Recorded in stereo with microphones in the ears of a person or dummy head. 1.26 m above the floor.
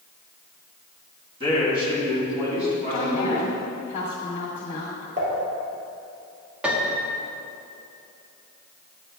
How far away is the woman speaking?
About 2 m.